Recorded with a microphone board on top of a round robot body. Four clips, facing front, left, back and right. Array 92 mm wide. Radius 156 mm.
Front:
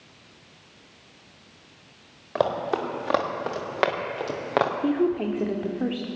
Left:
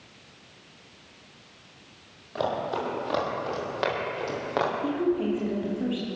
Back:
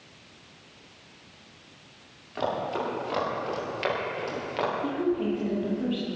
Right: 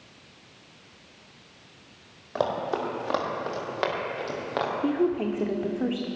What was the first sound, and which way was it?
Running footsteps, 15° right.